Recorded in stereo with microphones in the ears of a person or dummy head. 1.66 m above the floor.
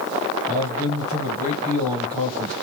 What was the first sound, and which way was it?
A man speaking, 20° right (ahead or behind).